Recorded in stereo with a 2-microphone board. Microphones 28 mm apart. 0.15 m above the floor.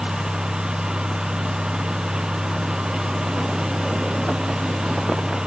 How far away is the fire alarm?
No fire alarm in this recording.